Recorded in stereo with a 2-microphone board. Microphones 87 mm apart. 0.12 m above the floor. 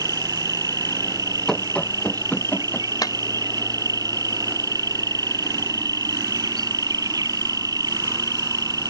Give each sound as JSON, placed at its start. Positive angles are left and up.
{"t": 0.0, "sound": "an insect", "side_deg": -45}
{"t": 1.5, "sound": "running footsteps", "side_deg": 5}
{"t": 3.0, "sound": "a clap", "side_deg": 45}